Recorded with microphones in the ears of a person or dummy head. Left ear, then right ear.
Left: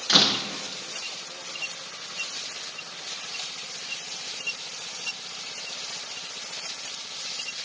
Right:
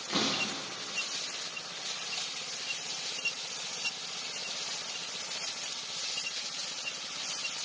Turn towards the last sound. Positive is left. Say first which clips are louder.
# left 11 dB
turn(degrees=45)  # may be behind; listen again after turning